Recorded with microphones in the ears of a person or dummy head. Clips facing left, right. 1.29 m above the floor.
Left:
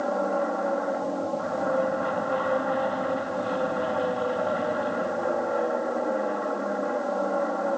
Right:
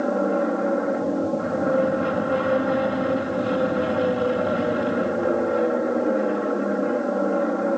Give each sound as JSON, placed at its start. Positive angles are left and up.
{"t": 0.0, "sound": "an aircraft", "side_deg": -40}